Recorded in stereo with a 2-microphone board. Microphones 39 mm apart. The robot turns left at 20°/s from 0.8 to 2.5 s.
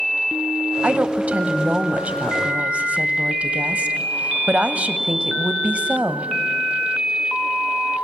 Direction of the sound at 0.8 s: 70° right.